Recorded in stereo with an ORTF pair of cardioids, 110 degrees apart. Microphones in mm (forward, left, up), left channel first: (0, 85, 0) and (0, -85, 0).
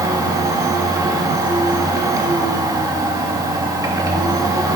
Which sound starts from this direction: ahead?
A machine running, at 0.0 s.